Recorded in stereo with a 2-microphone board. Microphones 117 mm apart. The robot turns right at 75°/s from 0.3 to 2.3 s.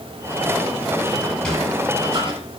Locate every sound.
1.2 s a sliding door: 25° left (ahead or behind), 8 m; by 2.4 s 55° right (ahead or behind), 8 m